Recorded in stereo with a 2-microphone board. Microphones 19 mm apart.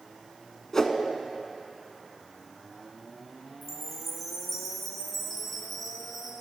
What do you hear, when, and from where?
0.7 s a whoosh: 25° left (ahead or behind), 0.7 m
3.6 s a chime: 10° left (ahead or behind), 2.5 m